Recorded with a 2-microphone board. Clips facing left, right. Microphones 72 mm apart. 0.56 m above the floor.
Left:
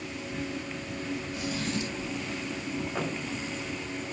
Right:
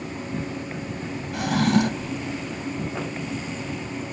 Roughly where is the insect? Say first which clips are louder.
Right 5 dB; right.